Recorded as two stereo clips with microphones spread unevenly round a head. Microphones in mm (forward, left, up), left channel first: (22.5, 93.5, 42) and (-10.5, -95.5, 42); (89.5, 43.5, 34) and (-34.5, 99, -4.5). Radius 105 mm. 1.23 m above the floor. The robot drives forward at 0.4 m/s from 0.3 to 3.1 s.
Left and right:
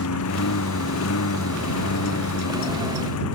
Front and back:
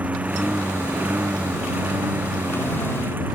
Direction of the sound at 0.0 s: 75° left.